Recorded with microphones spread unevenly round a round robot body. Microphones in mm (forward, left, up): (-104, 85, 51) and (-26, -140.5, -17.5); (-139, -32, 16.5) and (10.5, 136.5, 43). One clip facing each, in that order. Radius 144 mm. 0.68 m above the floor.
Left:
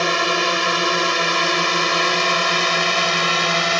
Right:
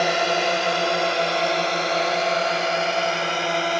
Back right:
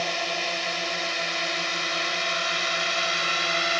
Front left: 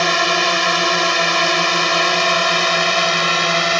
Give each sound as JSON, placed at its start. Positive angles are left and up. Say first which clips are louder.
{"t": 0.0, "sound": "a drone", "louder": "left 1 dB, front left 11 dB", "azimuth_deg": 30}